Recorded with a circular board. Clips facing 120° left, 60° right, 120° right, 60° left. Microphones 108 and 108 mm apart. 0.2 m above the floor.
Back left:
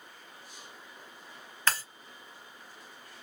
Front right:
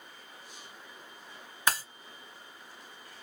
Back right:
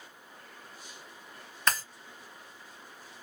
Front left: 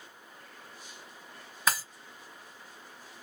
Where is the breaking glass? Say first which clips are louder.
Front right 1 dB, even; 10° right, 0.8 m.